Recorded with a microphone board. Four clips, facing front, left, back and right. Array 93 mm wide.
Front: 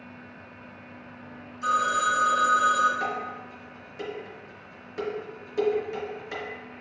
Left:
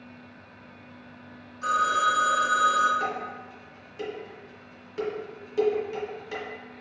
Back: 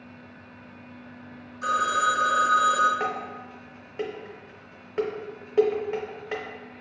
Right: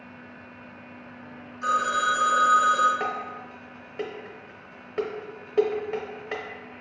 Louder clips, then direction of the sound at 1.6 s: Even, back 1 dB; straight behind.